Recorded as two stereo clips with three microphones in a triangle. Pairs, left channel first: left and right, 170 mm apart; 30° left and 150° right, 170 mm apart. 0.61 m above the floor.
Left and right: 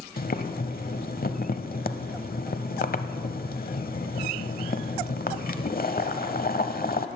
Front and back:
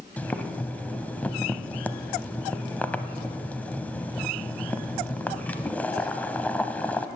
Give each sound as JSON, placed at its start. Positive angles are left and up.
{"t": 0.2, "sound": "boiling", "azimuth_deg": 110, "distance_m": 0.7}